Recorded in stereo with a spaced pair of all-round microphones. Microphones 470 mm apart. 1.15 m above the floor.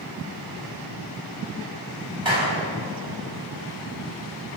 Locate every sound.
2.2 s a clap: 75° right (ahead or behind), 6 m